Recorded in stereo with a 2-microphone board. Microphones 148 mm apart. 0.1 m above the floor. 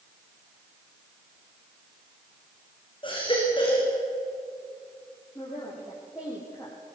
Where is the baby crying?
35° left (ahead or behind), 6 m.